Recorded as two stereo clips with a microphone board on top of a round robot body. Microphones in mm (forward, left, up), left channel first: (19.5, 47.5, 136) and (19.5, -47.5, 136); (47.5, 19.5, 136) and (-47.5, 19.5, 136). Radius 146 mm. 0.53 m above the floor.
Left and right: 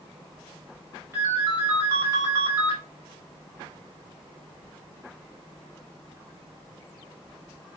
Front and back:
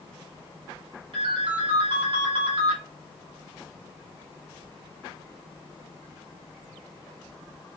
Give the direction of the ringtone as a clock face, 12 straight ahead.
5 o'clock.